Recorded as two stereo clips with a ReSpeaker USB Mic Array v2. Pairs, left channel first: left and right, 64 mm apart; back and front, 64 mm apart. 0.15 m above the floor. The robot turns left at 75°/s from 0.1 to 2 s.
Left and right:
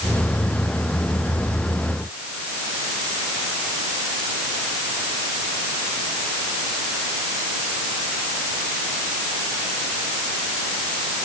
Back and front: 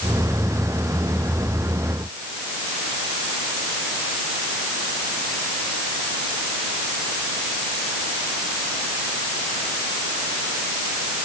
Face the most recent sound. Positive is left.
No sound to turn to.